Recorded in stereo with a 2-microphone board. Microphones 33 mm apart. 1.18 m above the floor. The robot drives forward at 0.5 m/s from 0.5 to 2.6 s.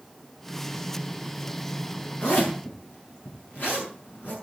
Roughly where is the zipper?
Left.